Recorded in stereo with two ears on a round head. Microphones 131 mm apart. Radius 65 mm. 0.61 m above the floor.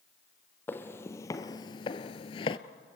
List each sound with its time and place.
0.7 s footsteps: 15° left (ahead or behind), 1.3 m; by 2.6 s 35° left (ahead or behind), 0.8 m